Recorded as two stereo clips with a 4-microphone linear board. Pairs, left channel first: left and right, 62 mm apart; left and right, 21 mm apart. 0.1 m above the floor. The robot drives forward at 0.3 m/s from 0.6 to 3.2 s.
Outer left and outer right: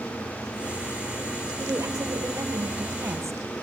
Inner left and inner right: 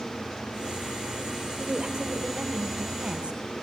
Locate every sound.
1.6 s a woman speaking: 55° right (ahead or behind), 1.9 m; by 3.6 s 50° right (ahead or behind), 2.0 m